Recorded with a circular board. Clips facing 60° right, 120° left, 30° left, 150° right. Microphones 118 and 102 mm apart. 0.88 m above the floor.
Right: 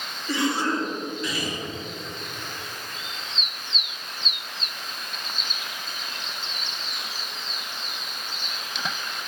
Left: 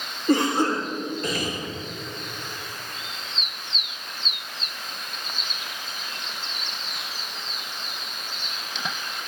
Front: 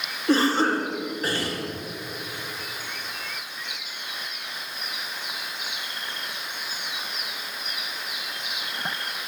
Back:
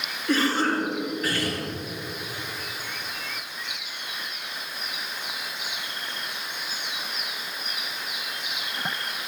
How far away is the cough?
About 4 m.